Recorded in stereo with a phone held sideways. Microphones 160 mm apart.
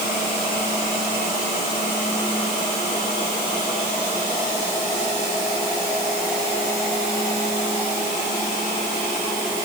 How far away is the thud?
No thud in this recording.